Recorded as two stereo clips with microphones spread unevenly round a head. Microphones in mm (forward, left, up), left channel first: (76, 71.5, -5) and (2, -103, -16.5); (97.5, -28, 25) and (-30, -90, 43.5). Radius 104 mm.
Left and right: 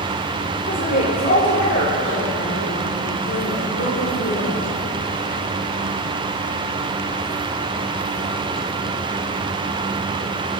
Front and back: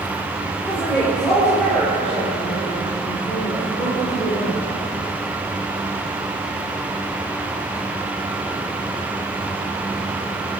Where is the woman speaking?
110° left, 5.5 m; by 4.6 s 95° left, 7 m.